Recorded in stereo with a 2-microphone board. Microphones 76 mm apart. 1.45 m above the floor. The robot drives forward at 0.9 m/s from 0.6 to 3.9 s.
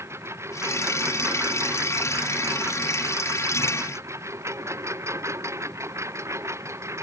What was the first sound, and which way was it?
A lawn mower, 35° right (ahead or behind).